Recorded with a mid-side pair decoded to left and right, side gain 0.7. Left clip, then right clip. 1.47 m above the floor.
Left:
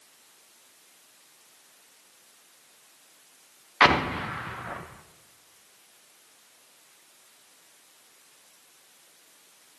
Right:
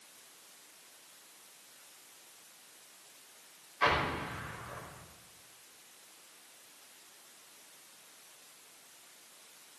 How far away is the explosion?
About 1.0 m.